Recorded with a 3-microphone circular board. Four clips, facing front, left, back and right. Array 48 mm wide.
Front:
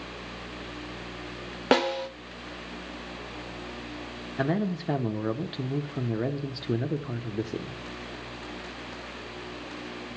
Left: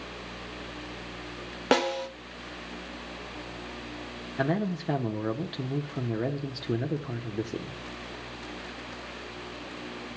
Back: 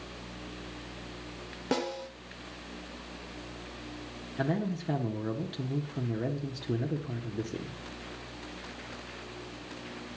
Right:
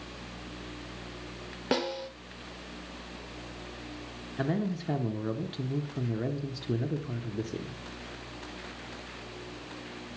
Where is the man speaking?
35° left, 0.8 m.